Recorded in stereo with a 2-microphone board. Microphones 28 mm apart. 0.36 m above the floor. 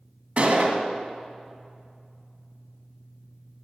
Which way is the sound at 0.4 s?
40° right (ahead or behind).